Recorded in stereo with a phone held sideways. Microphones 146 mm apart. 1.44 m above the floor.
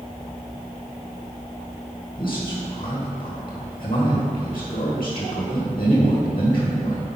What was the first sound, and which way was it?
A man speaking, 35° left (ahead or behind).